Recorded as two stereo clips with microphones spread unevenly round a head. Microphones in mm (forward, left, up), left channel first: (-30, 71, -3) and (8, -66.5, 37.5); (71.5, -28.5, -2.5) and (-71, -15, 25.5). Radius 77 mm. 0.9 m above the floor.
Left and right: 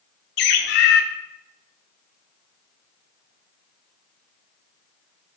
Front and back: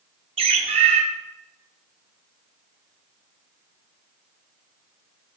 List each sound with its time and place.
0.4 s a bird: 120° left, 1.1 m